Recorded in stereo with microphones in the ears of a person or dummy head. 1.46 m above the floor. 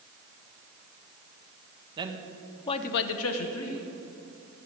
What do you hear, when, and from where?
2.0 s a man speaking: 20° right (ahead or behind), 1.3 m; by 3.9 s 70° left (ahead or behind), 1.8 m